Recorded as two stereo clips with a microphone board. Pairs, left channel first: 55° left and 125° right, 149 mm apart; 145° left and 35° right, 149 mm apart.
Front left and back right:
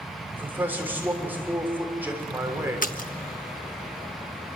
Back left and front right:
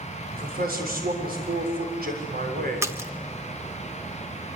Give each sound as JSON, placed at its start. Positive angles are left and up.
{"t": 0.3, "sound": "a man speaking", "azimuth_deg": -45, "distance_m": 7.0}
{"t": 2.8, "sound": "a splash", "azimuth_deg": 35, "distance_m": 1.4}